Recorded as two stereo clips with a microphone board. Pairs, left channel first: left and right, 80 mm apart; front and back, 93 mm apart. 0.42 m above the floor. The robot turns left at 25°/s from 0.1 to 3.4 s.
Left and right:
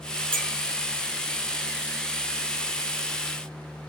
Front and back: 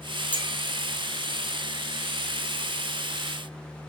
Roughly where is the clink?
Ahead.